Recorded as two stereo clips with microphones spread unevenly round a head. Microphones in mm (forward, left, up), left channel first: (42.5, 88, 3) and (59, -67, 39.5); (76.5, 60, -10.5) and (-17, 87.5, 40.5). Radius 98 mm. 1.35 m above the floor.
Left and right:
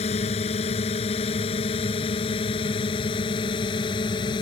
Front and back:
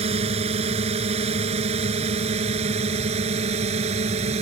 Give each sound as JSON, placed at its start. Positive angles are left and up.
{"t": 0.0, "sound": "a drone", "azimuth_deg": 155}